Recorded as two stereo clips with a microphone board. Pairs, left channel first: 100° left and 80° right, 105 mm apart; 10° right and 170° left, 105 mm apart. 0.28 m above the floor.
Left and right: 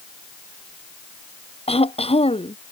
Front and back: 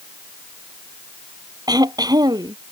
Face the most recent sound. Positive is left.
turn(degrees=120)